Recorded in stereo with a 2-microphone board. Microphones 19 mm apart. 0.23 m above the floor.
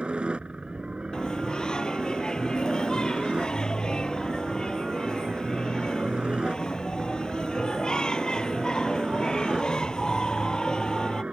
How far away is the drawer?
I don't hear a drawer.